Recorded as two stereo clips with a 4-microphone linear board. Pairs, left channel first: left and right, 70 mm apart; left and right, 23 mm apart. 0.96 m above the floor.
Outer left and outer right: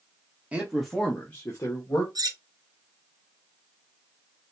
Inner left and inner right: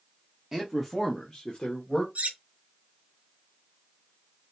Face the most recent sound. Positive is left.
turn(degrees=-65)  # may be behind; listen again after turning